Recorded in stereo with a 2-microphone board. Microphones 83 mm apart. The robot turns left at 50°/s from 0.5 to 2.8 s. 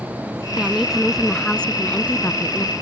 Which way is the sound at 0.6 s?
10° right (ahead or behind).